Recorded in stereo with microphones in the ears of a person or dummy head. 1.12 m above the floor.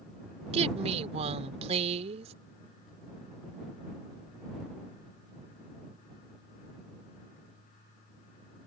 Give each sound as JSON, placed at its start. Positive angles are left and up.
{"t": 0.5, "sound": "a woman speaking", "side_deg": -35}